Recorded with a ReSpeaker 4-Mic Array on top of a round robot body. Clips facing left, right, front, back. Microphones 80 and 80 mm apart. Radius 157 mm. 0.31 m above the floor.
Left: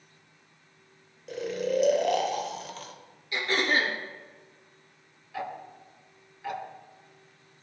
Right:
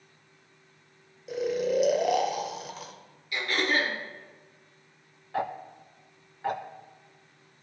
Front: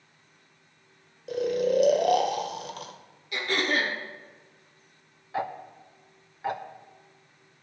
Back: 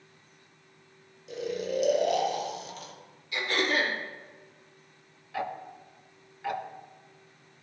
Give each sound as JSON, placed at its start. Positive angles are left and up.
{"t": 1.3, "sound": "snoring", "azimuth_deg": -5, "distance_m": 1.6}
{"t": 3.3, "sound": "throat clearing", "azimuth_deg": 30, "distance_m": 3.5}
{"t": 5.3, "sound": "ticking", "azimuth_deg": -55, "distance_m": 1.1}